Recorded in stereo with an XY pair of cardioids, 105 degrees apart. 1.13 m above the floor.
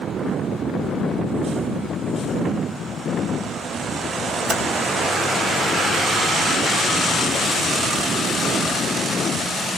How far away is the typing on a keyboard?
About 4 m.